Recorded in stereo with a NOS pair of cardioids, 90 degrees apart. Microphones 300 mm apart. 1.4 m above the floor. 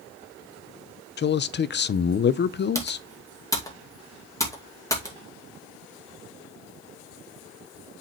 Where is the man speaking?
40° left, 0.6 m.